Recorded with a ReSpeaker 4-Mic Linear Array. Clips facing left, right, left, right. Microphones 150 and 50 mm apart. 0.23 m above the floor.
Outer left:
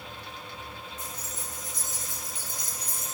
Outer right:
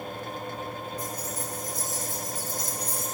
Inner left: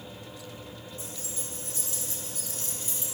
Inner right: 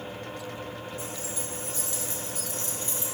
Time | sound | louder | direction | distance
1.0 | keys jangling | outer right 7 dB, inner right 5 dB | 30° left (ahead or behind) | 4.5 m